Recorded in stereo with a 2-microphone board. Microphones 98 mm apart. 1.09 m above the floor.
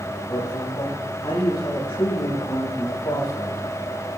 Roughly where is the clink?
No clink in this recording.